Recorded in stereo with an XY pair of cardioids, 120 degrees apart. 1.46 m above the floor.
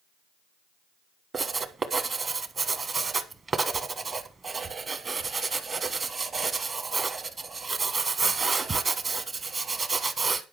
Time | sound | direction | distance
1.3 | writing | 30° right | 1.1 m